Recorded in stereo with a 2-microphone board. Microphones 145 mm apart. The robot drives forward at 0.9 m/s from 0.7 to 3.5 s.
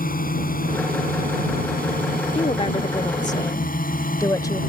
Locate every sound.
0.0 s a drone: 70° left (ahead or behind)
2.4 s a woman speaking: 45° left (ahead or behind); by 4.6 s 25° left (ahead or behind)